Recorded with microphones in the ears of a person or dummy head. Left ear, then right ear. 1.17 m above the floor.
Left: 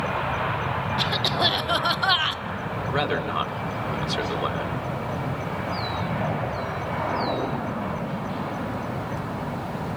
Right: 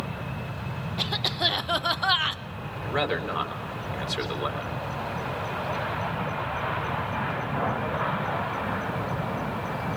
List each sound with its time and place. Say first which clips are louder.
1.0 s a cough: left 2 dB; centre (ahead or behind), 0.8 m
2.8 s a man speaking: left 1 dB; 5° right (ahead or behind), 4 m